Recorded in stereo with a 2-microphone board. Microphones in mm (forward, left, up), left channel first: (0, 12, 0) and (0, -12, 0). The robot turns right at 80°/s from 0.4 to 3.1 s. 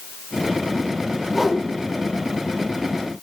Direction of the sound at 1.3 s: 10° right (ahead or behind).